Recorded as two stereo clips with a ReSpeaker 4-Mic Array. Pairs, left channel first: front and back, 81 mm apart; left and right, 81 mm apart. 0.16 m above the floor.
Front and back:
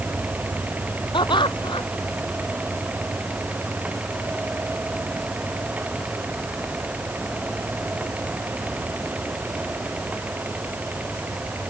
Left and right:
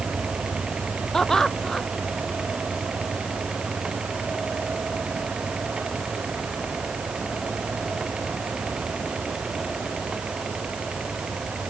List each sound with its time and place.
1.1 s laughter: 5° left